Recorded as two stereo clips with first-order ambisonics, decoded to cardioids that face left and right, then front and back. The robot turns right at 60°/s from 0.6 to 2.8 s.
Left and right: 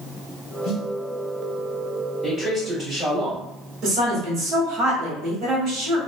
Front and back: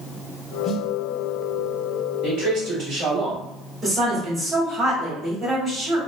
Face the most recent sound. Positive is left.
turn(degrees=-105)